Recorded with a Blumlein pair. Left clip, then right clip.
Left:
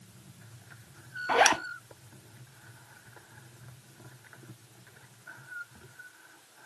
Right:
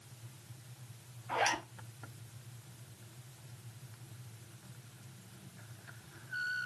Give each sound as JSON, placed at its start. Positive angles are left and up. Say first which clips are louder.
{"t": 1.3, "sound": "a zipper", "louder": "left 9 dB", "azimuth_deg": 45, "distance_m": 0.5}